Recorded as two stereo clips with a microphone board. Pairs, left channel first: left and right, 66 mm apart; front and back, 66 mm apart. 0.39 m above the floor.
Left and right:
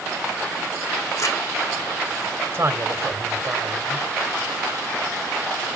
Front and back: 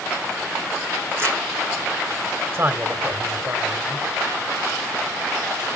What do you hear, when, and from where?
1.2 s crumpling: 125° left, 7 m
2.5 s a man speaking: 130° right, 2 m